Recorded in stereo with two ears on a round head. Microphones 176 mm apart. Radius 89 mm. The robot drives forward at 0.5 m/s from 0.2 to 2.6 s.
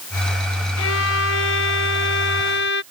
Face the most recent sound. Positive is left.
turn(degrees=65)  # may be behind; listen again after turning